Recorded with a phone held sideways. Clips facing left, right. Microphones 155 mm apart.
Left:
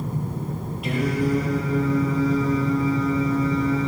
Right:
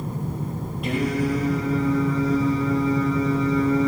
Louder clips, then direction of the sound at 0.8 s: Even; centre (ahead or behind).